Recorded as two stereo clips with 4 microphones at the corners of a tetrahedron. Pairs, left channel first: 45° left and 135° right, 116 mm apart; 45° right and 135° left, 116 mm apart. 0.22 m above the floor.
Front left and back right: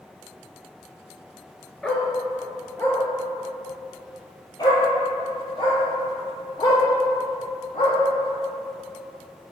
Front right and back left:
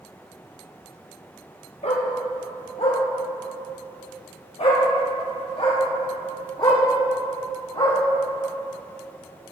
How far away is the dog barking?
About 1.6 m.